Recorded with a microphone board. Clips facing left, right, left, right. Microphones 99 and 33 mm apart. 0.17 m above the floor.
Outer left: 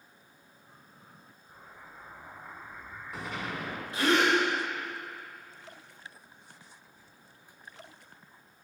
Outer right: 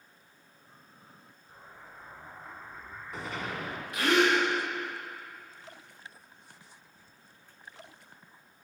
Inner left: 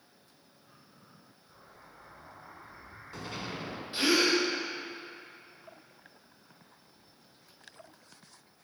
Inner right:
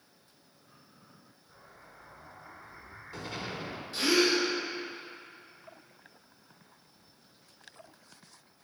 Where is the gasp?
30° left (ahead or behind), 2.5 m.